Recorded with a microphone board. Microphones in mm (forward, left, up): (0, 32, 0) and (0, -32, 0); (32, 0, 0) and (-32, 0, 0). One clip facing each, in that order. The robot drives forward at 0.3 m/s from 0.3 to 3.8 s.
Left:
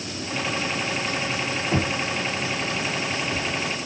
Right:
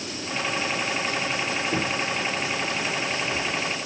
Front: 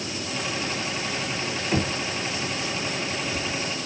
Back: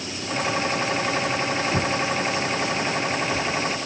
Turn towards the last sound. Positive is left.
turn(degrees=110)